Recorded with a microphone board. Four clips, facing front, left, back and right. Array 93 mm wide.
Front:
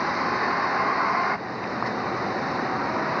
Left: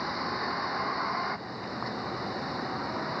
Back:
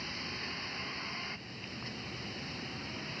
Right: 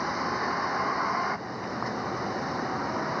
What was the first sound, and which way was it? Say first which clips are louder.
A vehicle: right 3 dB, front 19 dB; 15° right.